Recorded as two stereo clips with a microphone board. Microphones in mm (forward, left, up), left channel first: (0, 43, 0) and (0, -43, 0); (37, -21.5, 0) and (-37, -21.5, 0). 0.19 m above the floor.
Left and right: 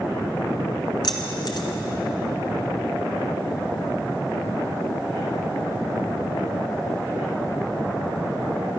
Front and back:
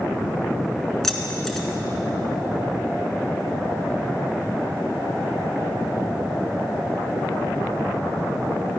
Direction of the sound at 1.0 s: 85° left.